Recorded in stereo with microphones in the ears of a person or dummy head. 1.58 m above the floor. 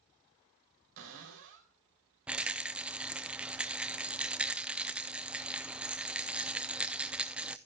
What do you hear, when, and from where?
1.0 s a cupboard door: 70° right (ahead or behind), 3 m
2.3 s a rattle: 5° right (ahead or behind), 0.6 m